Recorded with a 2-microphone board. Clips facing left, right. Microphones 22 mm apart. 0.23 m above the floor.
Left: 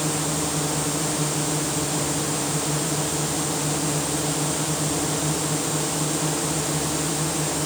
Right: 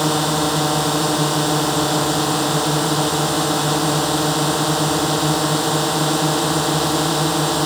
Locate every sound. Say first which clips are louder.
0.0 s a drone: right 7 dB; 50° right (ahead or behind)